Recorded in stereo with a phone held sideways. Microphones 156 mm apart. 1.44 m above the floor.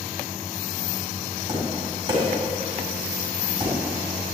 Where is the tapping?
30° right (ahead or behind), 3.5 m.